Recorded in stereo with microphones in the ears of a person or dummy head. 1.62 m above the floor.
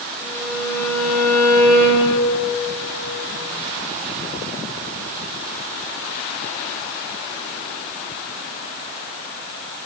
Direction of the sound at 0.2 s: 10° right (ahead or behind).